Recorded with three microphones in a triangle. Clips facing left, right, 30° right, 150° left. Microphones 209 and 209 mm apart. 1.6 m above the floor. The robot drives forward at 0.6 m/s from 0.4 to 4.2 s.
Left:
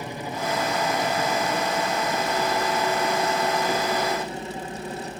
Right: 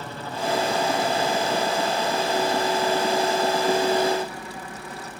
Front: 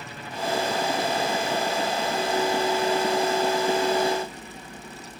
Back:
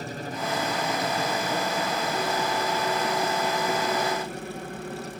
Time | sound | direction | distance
0.0 | a helicopter | 160° left | ?